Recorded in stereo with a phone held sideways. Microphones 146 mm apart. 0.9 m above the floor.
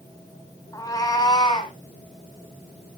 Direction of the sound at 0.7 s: 25° left (ahead or behind).